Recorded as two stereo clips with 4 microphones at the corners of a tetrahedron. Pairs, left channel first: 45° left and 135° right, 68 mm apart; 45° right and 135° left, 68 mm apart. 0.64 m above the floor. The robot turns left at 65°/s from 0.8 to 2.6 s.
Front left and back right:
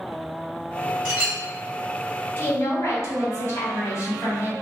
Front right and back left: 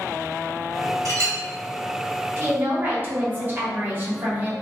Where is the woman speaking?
95° left, 0.9 m; by 4.5 s 80° left, 0.9 m.